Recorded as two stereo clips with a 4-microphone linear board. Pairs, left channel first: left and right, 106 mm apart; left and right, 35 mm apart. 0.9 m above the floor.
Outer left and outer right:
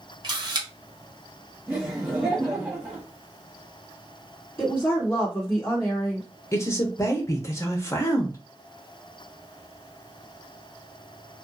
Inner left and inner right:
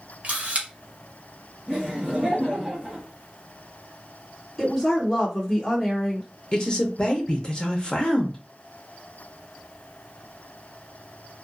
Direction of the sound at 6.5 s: 25° left (ahead or behind).